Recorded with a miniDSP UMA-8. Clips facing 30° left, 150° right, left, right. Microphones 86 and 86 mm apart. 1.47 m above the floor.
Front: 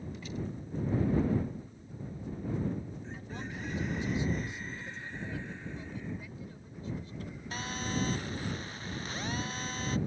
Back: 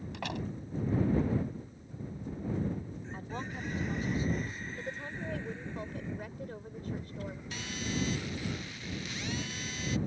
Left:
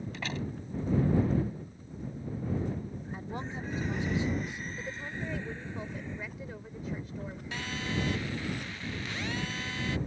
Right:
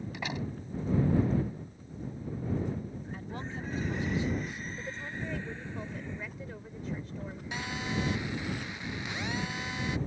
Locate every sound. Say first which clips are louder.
0.1 s a door slam: back 3 dB, right 1 dB; 165° right
3.1 s a woman speaking: back 3 dB, left 2 dB; 160° left
4.8 s a woman speaking: back 3 dB, left 1 dB; straight behind
7.5 s a phone buzzing: front 3 dB, right 1 dB; 20° right